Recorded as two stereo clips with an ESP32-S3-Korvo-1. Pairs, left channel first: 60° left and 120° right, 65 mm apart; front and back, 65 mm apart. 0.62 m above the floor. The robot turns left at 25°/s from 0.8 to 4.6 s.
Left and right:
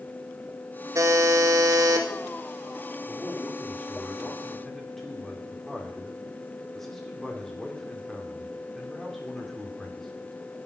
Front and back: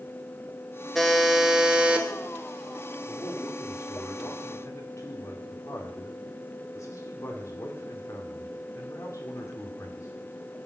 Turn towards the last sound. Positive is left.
turn(degrees=-25)